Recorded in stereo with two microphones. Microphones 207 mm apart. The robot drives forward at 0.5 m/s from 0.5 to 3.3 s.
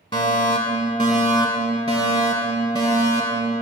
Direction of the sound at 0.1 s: 25° left (ahead or behind).